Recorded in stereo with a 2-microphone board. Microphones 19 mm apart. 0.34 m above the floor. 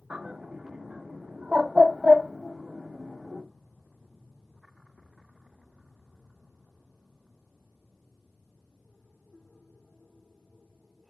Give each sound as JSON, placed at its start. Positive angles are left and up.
{"t": 0.1, "sound": "a bird", "side_deg": -70, "distance_m": 0.5}